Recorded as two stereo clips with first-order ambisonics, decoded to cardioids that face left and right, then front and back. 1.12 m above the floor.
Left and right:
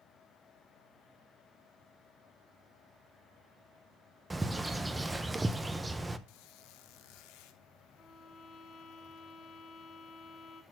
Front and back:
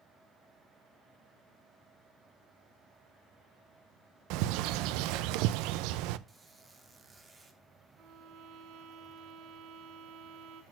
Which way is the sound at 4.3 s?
170° right.